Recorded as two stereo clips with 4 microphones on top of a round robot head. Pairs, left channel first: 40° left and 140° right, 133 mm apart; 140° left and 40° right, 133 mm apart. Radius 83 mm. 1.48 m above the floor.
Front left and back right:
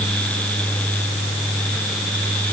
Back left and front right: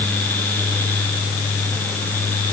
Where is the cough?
I don't hear a cough.